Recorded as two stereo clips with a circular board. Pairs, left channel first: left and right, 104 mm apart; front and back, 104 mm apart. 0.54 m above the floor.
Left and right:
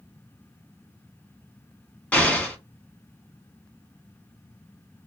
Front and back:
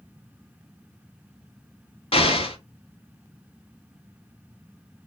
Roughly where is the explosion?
Ahead.